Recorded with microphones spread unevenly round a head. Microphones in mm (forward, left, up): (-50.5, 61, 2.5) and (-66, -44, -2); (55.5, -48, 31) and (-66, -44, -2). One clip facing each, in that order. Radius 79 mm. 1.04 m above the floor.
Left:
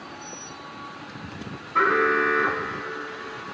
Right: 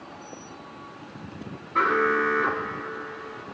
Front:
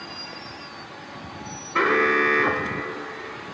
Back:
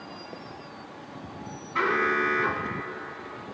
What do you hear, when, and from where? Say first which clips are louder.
1.8 s an alarm: left 1 dB, front 5 dB; 20° right, 1.0 m